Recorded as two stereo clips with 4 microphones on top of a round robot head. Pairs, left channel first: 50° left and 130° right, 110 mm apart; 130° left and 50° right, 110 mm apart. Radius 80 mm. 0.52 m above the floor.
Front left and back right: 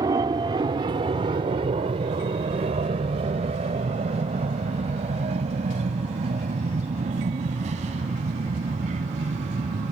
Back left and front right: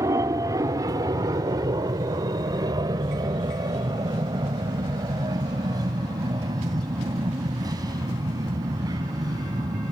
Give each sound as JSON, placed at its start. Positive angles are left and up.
{"t": 0.0, "sound": "an aircraft", "azimuth_deg": -95}